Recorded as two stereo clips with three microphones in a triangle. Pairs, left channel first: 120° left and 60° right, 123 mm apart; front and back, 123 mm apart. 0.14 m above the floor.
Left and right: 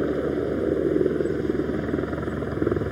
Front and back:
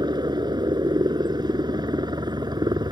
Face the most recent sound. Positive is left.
turn(degrees=-150)